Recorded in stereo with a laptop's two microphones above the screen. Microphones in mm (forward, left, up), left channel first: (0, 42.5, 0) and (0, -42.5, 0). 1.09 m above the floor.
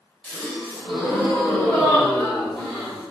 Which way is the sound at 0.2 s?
5° left (ahead or behind).